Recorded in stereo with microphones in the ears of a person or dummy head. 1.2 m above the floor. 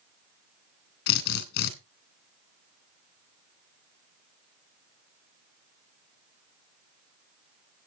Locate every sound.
1.1 s a drill: 60° left (ahead or behind), 3 m